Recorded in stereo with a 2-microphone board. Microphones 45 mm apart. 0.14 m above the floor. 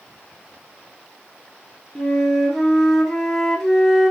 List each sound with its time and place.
1.9 s a flute: 5° left (ahead or behind), 0.9 m